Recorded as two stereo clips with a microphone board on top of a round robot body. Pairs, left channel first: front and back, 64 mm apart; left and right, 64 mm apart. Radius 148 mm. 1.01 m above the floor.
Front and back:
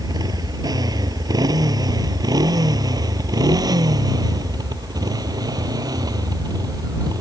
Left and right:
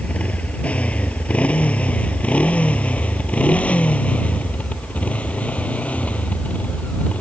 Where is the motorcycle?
160° left.